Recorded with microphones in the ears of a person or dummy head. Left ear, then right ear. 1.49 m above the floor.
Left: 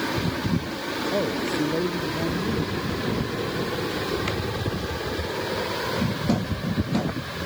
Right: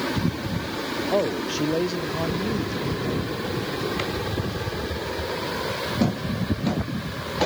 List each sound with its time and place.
1.1 s a man speaking: 50° right (ahead or behind)